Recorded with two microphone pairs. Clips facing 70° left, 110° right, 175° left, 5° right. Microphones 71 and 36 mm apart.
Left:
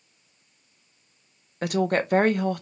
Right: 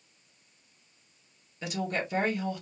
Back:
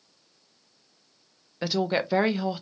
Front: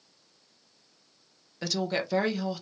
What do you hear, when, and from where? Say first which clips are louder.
1.6 s a woman speaking: left 9 dB, back 4 dB; 105° left, 0.6 m